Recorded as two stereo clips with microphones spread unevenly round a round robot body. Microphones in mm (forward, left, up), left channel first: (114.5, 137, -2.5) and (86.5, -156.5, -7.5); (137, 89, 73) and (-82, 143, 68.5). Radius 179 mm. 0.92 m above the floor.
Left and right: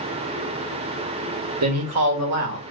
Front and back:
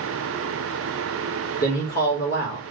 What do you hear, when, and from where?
1.6 s a man speaking: 65° right, 1.4 m